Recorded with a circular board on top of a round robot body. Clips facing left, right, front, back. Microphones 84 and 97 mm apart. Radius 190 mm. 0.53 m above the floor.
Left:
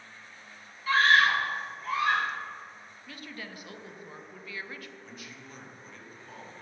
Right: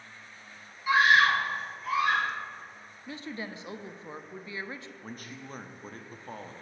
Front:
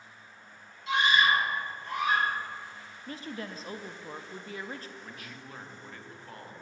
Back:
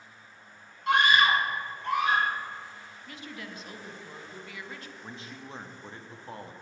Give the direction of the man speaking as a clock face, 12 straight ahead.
4 o'clock.